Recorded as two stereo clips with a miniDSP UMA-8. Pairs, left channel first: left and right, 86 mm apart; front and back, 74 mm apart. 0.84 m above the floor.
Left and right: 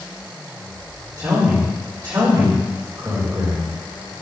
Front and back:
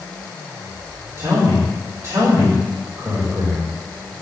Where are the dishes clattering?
I don't hear dishes clattering.